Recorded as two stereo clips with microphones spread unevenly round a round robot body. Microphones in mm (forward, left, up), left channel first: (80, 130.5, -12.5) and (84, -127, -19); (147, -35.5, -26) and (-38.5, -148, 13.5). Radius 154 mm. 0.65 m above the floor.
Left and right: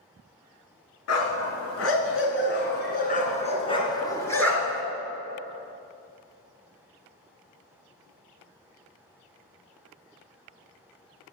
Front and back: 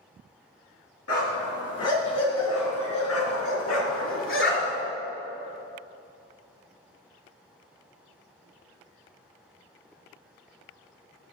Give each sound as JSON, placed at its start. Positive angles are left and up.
{"t": 1.1, "sound": "a dog barking", "azimuth_deg": 75, "distance_m": 3.5}